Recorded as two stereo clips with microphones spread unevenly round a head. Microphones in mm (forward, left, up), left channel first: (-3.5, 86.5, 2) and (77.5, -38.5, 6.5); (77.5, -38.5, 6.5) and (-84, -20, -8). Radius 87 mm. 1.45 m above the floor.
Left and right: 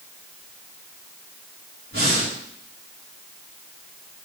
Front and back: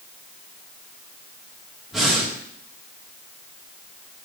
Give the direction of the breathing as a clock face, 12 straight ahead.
3 o'clock.